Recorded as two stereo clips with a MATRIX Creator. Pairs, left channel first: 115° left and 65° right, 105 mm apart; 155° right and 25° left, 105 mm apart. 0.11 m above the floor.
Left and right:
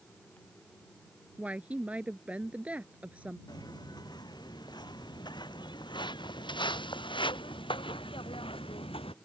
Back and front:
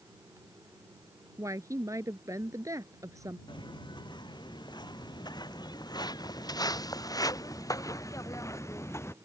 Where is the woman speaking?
Straight ahead.